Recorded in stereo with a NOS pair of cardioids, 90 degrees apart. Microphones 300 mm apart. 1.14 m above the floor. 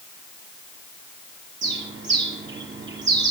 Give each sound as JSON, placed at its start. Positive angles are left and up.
{"t": 1.6, "sound": "a bird", "azimuth_deg": -40, "distance_m": 6.0}